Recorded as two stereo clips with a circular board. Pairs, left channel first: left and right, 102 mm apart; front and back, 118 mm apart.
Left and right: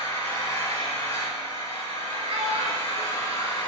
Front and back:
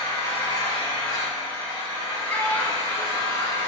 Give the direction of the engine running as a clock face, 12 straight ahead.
10 o'clock.